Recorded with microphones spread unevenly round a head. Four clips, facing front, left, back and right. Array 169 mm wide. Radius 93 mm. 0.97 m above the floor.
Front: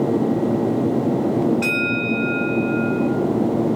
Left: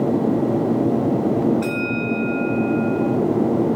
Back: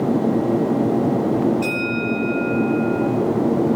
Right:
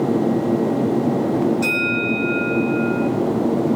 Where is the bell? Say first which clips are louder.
Right 1 dB, even; straight ahead, 6 m.